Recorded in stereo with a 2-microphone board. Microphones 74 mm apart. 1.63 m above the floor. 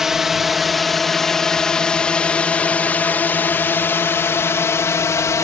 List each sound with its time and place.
0.0 s a drone: 5° right (ahead or behind); by 5.5 s 45° left (ahead or behind)